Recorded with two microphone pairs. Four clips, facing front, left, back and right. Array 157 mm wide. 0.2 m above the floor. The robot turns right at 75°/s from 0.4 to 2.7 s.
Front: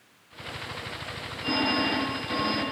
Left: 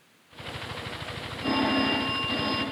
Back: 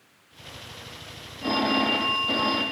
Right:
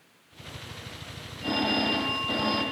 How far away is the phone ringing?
About 6.5 m.